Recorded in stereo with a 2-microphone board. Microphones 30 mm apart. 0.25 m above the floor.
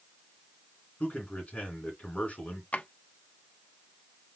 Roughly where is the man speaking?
Left.